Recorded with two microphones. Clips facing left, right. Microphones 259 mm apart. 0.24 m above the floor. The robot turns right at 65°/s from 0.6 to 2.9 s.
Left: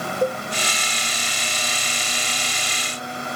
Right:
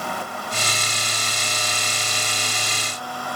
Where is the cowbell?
80° left.